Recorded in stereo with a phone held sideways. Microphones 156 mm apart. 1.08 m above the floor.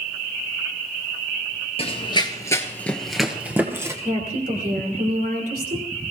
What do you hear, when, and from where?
1.8 s running footsteps: 40° left (ahead or behind), 1.4 m; by 3.9 s 20° right (ahead or behind), 1.6 m
4.0 s a woman speaking: 70° right (ahead or behind), 3 m